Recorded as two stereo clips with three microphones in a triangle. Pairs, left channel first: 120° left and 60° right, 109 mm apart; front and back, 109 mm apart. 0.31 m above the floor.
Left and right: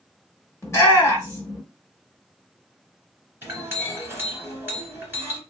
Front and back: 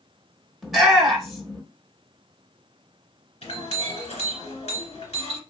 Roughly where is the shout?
Left.